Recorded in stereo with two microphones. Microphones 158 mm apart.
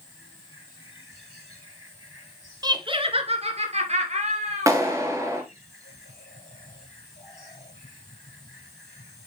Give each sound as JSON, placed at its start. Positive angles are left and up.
{"t": 2.6, "sound": "laughter", "side_deg": -25, "distance_m": 1.3}
{"t": 4.7, "sound": "a clap", "side_deg": -20, "distance_m": 2.5}